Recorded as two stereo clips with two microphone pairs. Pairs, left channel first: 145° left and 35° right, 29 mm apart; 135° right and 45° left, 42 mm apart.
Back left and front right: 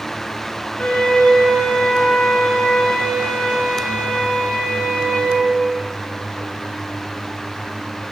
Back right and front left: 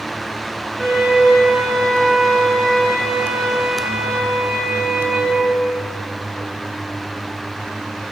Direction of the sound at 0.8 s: 140° left.